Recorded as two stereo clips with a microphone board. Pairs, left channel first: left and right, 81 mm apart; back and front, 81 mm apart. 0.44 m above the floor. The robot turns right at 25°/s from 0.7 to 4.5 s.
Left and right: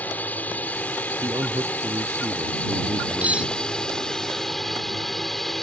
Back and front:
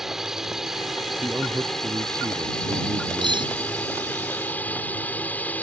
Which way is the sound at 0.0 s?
75° left.